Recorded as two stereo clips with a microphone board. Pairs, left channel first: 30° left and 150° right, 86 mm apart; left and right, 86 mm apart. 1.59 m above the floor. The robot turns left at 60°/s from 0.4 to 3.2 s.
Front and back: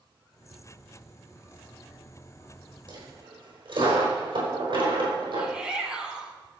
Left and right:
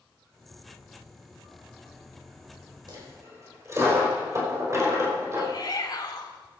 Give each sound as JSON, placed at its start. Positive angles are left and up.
{"t": 2.9, "sound": "a dropped coin", "azimuth_deg": -125, "distance_m": 4.5}
{"t": 5.4, "sound": "a shout", "azimuth_deg": 130, "distance_m": 4.5}